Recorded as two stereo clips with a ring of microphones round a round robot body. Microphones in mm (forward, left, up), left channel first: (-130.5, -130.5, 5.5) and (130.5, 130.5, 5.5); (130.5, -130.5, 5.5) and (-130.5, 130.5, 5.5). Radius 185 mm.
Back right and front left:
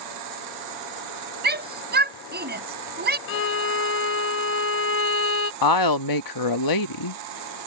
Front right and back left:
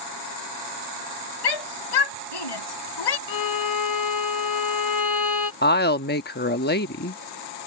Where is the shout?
20° right.